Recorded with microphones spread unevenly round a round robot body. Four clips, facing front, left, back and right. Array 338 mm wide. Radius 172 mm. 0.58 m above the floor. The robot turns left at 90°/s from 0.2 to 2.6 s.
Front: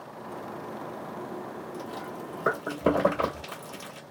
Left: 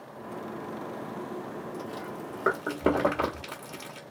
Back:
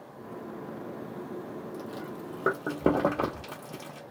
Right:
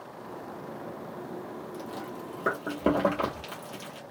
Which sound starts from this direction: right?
Chewing, at 1.7 s.